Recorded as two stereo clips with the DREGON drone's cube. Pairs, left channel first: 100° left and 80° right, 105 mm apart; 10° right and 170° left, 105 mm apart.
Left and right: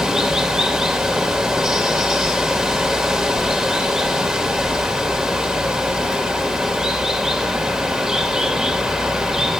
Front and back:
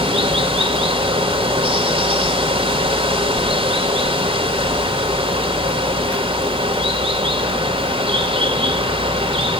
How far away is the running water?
About 2.5 m.